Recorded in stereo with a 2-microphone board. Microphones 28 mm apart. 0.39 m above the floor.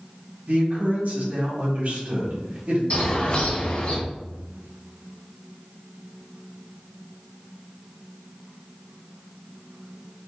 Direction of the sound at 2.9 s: 50° left (ahead or behind).